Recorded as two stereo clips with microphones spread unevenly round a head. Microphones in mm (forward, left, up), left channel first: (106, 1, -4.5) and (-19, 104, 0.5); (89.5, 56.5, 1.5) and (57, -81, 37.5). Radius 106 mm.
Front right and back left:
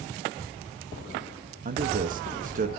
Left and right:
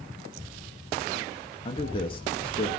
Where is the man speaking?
115° left, 1.7 m.